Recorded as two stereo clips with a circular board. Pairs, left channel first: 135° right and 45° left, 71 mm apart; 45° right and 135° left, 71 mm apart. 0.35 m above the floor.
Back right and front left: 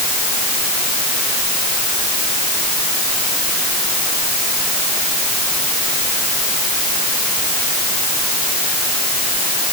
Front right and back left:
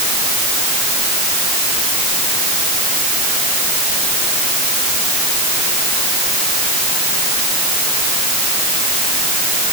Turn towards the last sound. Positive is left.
No sound to turn to.